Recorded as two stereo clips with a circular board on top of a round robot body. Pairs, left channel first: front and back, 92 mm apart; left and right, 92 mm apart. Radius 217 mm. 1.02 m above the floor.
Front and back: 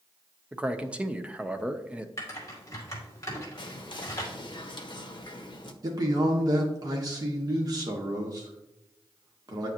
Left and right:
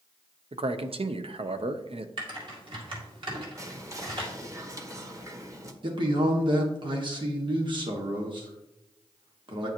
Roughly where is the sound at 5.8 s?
Behind right.